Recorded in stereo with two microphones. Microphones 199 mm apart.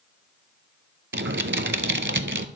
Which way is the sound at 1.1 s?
70° right (ahead or behind).